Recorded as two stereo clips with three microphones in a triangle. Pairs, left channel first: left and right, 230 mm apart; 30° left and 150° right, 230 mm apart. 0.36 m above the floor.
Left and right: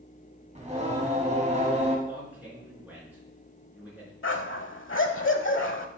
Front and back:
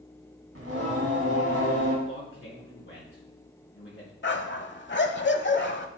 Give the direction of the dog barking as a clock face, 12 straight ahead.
10 o'clock.